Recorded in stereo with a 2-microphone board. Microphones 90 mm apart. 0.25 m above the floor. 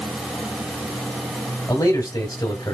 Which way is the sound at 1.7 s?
40° left (ahead or behind).